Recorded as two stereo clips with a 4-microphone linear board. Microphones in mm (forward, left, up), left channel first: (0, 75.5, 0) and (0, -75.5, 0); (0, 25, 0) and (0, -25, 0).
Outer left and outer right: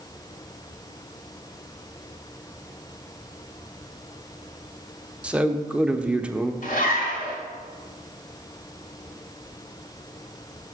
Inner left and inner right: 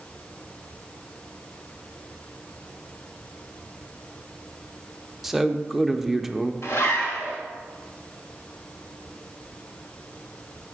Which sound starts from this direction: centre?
A man speaking, at 5.2 s.